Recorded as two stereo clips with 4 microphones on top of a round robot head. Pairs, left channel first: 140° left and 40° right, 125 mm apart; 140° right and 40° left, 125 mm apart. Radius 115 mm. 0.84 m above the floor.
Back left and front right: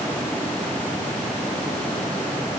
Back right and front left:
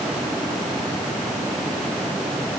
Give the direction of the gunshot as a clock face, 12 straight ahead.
No gunshot in this recording.